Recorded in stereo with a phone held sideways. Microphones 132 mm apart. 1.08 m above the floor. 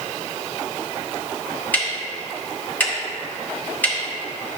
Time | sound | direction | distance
1.7 | ticking | 15° left (ahead or behind) | 1.9 m